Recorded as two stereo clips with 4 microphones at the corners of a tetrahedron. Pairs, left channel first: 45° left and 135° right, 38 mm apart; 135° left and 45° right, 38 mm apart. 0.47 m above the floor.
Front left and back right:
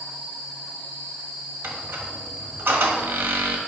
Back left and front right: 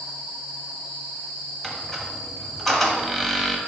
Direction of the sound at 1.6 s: 145° right.